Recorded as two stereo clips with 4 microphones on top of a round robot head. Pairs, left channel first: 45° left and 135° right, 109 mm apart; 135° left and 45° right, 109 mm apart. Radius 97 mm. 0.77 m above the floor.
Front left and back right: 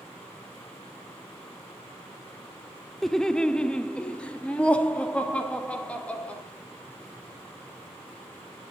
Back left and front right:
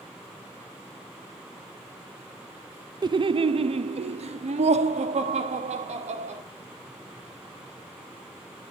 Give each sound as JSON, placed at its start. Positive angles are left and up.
{"t": 3.0, "sound": "laughter", "azimuth_deg": -40, "distance_m": 0.5}